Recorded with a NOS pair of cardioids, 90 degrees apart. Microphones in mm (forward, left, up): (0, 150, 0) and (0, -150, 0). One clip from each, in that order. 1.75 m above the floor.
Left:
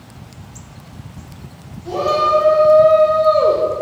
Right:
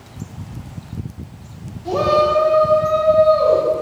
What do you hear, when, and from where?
1.9 s a shout: 30° right, 0.8 m; by 3.6 s 65° left, 1.2 m